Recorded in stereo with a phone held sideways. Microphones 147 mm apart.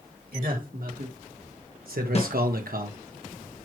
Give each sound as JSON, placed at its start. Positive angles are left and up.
{"t": 0.3, "sound": "a man speaking", "side_deg": -70, "distance_m": 2.5}
{"t": 2.1, "sound": "a snare drum", "side_deg": 45, "distance_m": 1.1}